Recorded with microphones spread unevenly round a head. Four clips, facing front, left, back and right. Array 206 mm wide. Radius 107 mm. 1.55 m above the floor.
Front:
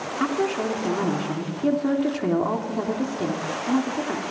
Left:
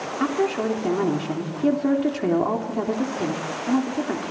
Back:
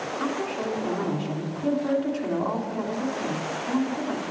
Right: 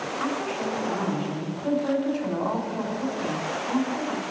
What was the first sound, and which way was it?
A woman speaking, 60° left.